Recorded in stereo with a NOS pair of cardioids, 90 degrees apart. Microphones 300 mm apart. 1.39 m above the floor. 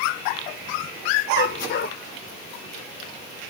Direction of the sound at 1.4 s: 40° left.